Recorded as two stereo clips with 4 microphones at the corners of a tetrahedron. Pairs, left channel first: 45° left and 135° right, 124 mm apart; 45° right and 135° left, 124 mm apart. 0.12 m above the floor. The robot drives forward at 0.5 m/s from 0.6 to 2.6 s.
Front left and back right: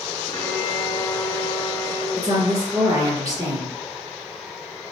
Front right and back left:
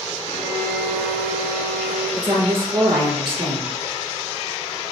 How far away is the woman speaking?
About 1.7 m.